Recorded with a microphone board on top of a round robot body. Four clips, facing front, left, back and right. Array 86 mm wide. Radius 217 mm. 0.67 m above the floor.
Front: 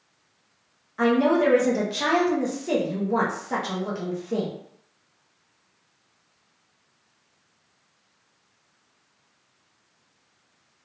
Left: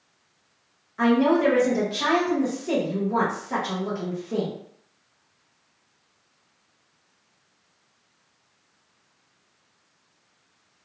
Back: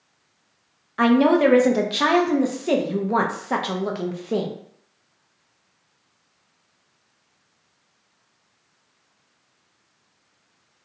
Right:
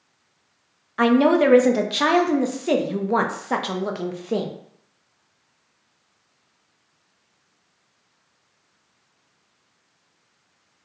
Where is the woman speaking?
125° right, 0.6 m.